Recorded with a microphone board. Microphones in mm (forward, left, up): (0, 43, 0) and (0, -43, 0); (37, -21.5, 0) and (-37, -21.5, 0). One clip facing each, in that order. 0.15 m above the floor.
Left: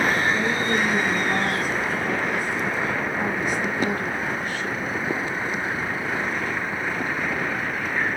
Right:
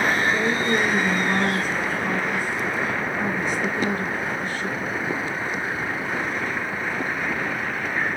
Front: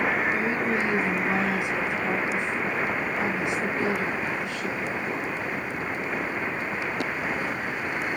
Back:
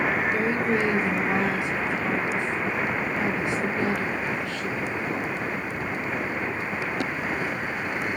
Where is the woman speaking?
55° right, 1.9 m.